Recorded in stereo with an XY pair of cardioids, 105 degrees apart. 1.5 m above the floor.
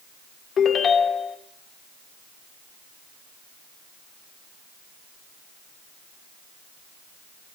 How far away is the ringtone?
About 3 m.